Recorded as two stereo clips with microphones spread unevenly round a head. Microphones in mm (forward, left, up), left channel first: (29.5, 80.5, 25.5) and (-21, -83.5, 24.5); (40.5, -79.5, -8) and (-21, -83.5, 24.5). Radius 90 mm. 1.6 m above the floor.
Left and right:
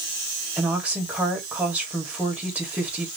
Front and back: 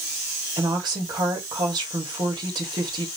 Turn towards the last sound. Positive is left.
turn(degrees=170)